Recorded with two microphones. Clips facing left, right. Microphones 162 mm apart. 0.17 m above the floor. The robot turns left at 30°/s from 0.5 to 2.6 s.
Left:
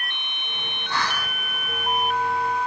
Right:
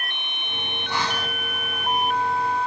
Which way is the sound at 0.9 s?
15° right (ahead or behind).